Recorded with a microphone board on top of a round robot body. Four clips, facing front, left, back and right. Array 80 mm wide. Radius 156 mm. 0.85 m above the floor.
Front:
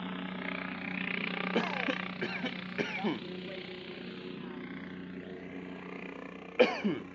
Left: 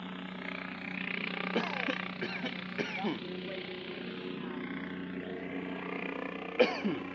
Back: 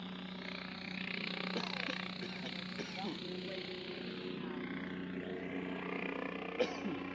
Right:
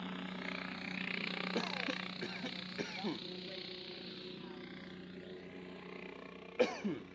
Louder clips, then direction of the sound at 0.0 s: Left 2 dB, front 7 dB; 10° left.